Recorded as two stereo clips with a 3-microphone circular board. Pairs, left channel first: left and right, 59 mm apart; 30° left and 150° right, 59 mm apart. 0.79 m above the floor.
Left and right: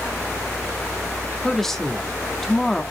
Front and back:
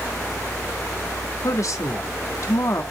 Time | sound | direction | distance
1.4 | a woman speaking | 5° left | 1.4 m